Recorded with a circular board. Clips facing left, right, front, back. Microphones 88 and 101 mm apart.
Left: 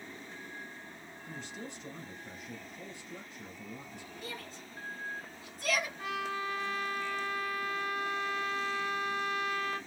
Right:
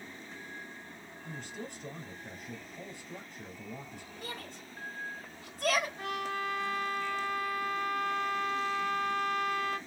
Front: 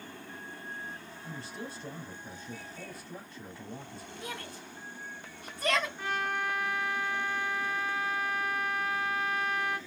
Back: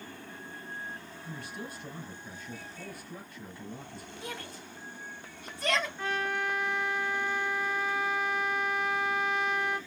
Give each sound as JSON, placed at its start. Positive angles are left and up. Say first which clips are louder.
{"t": 1.2, "sound": "a man speaking", "louder": "right 1 dB, even", "azimuth_deg": -60, "distance_m": 2.5}
{"t": 4.2, "sound": "a shout", "louder": "right 2 dB, even", "azimuth_deg": -85, "distance_m": 4.0}
{"t": 6.0, "sound": "a trumpet", "louder": "right 1 dB, back 1 dB", "azimuth_deg": -80, "distance_m": 2.5}